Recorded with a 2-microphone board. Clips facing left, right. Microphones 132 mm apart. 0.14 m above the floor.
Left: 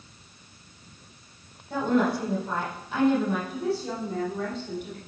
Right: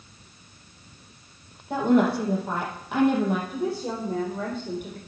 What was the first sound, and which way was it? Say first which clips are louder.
A woman speaking: right 3 dB; 75° right (ahead or behind).